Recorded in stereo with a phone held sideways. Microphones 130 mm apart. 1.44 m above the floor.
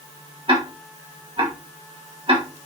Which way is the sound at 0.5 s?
45° right (ahead or behind).